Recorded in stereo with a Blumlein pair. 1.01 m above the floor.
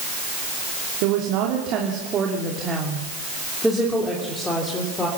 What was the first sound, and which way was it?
A woman speaking, 45° right.